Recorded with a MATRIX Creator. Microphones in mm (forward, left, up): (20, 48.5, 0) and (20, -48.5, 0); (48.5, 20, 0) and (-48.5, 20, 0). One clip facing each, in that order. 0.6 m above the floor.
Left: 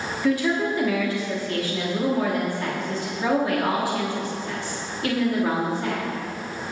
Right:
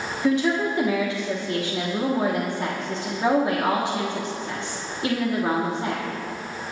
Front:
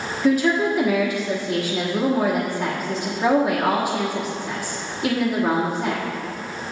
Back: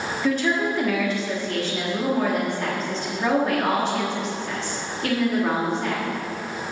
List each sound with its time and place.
0.2 s a woman speaking: 65° right, 1.3 m